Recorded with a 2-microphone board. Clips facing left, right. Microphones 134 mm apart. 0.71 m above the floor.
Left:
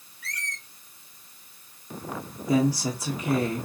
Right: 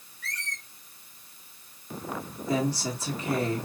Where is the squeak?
15° left (ahead or behind), 1.9 m.